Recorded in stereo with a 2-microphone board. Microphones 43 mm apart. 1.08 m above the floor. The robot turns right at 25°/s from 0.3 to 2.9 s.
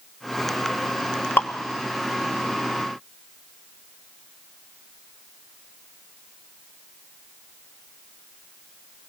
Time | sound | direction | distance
1.4 | dripping | 55° left (ahead or behind) | 1.3 m